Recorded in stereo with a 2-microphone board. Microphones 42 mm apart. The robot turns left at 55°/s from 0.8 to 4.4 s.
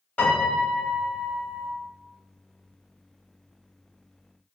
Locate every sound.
0.2 s a piano: 65° left, 1.2 m; by 1.7 s 15° left, 1.2 m